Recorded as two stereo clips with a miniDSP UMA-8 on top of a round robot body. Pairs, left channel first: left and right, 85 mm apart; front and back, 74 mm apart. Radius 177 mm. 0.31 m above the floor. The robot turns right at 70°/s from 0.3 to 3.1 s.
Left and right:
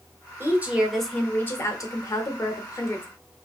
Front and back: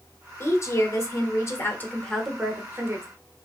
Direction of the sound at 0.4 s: 40° right.